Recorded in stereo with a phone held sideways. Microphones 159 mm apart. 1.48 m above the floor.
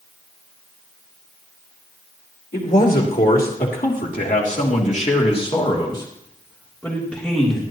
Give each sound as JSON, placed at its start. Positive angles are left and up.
{"t": 2.5, "sound": "a man speaking", "side_deg": 85, "distance_m": 4.5}